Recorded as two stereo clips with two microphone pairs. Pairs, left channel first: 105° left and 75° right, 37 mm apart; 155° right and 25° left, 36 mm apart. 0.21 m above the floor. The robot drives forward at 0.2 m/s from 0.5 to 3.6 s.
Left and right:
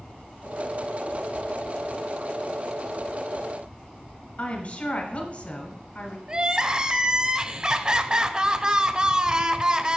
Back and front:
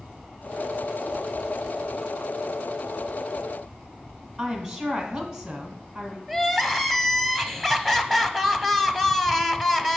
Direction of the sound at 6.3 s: 65° right.